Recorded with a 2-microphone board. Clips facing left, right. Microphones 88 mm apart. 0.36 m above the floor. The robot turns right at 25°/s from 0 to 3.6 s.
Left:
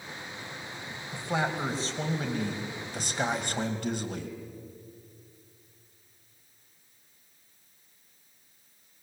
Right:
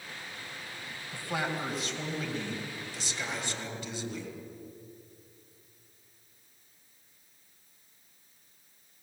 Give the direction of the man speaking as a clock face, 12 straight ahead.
11 o'clock.